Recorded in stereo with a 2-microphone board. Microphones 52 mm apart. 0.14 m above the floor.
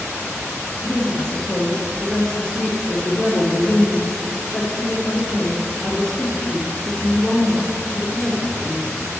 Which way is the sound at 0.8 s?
10° left (ahead or behind).